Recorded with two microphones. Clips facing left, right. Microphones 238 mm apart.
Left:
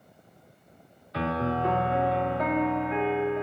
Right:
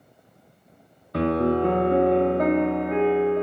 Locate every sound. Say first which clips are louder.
1.1 s a piano: right 8 dB; 50° right (ahead or behind), 1.2 m